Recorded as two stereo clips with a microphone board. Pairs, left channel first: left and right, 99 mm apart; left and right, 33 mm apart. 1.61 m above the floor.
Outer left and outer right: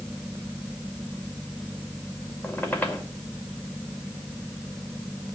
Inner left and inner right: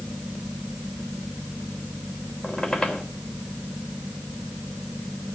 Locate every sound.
2.4 s a squeak: 20° left (ahead or behind), 2.5 m